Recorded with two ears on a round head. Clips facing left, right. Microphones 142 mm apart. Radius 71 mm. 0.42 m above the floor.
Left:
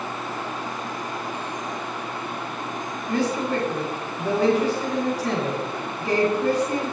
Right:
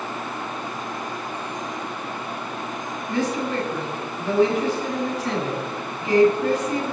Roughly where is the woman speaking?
Left.